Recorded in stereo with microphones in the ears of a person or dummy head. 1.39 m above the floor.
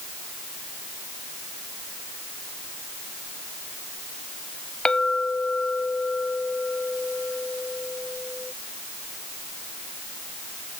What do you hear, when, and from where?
4.8 s a clink: 5° left (ahead or behind)